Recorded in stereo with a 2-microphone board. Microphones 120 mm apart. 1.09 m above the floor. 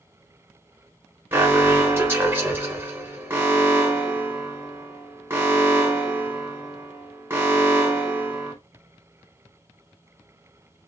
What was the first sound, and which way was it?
An alarm, 20° right (ahead or behind).